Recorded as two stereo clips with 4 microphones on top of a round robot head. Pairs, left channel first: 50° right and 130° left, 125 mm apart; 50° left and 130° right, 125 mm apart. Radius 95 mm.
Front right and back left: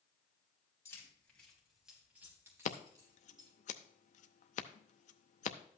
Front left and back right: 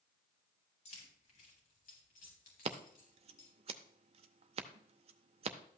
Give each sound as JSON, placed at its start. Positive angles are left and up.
{"t": 0.8, "sound": "keys jangling", "azimuth_deg": 20, "distance_m": 3.5}
{"t": 2.6, "sound": "scissors", "azimuth_deg": -85, "distance_m": 0.7}